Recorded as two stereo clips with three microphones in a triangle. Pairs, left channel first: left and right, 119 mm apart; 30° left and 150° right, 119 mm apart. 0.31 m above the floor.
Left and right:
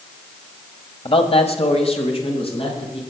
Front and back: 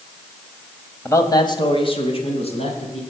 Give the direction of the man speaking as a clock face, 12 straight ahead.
9 o'clock.